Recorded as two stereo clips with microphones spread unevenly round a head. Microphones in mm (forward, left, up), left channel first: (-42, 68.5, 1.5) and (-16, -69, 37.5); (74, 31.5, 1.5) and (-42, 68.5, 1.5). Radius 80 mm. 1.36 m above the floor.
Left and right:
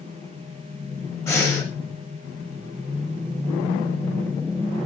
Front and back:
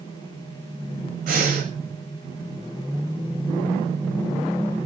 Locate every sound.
1.3 s breathing: 170° left, 7.5 m